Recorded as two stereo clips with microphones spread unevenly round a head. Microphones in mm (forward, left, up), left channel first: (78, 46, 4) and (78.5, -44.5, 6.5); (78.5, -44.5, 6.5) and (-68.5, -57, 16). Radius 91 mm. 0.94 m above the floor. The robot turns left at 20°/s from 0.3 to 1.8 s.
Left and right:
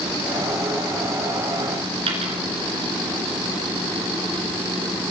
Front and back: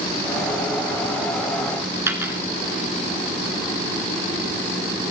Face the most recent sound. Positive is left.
turn(degrees=-105)